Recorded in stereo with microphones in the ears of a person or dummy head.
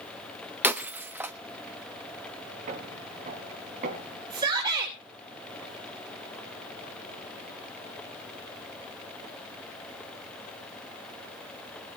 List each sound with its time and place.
0.6 s breaking glass: 5° right (ahead or behind), 1.0 m
2.7 s footsteps: 45° right (ahead or behind), 4.5 m
4.3 s a shout: 25° right (ahead or behind), 3.5 m